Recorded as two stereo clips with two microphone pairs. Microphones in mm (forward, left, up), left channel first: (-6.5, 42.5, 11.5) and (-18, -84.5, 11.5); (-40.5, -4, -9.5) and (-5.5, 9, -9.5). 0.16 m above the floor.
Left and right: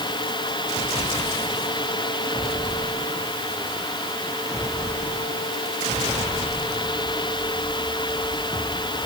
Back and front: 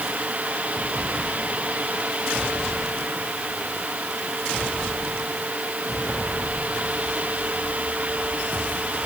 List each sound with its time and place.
Only background noise.